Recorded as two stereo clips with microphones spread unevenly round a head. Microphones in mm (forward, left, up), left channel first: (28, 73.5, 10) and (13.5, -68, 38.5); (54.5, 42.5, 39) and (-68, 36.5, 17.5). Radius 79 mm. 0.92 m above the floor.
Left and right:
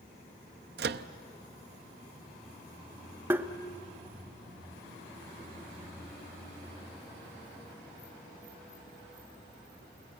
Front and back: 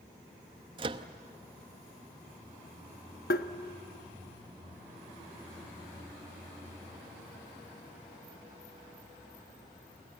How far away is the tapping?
About 0.8 m.